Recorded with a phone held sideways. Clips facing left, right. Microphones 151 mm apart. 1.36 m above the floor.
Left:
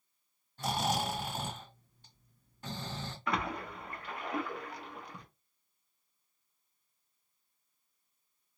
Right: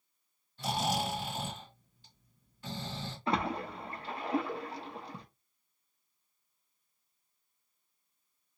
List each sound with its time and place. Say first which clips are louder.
0.6 s snoring: even; 45° left (ahead or behind), 2 m
3.3 s a splash: right 3 dB; 30° right (ahead or behind), 0.6 m